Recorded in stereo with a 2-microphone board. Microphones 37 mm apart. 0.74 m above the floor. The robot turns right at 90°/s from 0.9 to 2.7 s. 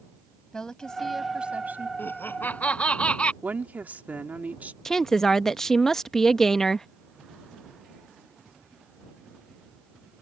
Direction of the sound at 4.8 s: 10° left (ahead or behind).